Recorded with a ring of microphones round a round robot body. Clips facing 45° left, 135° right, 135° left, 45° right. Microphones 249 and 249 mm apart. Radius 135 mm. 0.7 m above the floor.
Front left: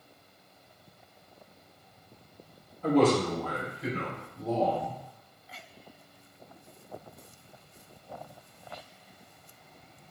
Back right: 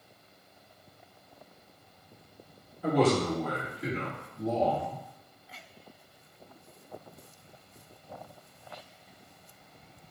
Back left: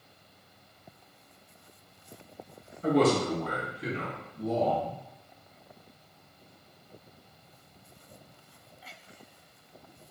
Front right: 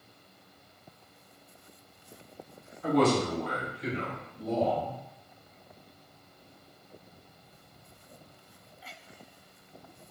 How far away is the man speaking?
About 1.0 m.